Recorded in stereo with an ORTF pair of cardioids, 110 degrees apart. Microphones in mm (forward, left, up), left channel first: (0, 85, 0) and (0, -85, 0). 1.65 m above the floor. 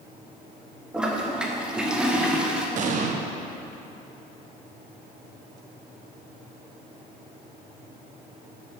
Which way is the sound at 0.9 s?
5° right.